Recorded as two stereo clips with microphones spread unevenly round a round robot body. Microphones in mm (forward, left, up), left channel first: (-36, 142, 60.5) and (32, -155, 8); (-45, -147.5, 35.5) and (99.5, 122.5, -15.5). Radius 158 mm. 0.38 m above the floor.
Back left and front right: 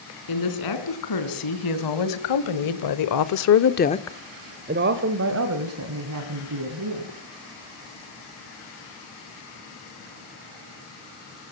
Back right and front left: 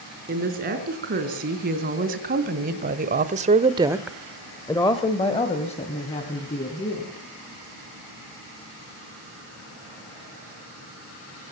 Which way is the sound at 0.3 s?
125° left.